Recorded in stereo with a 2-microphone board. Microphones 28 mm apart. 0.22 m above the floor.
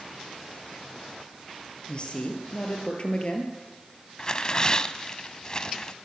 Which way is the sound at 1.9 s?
35° left (ahead or behind).